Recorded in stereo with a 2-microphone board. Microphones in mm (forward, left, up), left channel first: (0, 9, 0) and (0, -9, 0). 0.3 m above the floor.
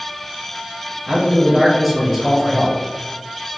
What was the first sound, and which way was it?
A man speaking, centre (ahead or behind).